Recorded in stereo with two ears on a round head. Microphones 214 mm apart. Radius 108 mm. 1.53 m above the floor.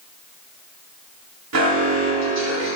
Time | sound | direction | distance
1.5 | an alarm | 80° right | 7 m